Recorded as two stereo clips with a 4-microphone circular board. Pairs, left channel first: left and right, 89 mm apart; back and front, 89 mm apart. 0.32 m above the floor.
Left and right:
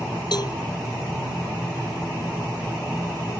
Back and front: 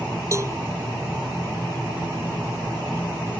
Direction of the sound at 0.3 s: 55° left.